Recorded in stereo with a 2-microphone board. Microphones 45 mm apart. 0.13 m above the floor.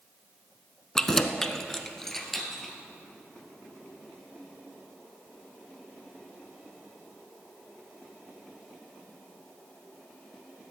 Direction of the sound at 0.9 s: 10° left (ahead or behind).